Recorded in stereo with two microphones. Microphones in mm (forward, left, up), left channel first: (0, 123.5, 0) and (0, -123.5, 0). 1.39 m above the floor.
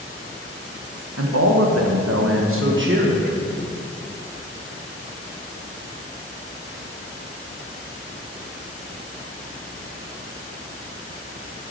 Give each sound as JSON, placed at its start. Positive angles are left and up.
{"t": 1.2, "sound": "a man speaking", "side_deg": -70, "distance_m": 0.9}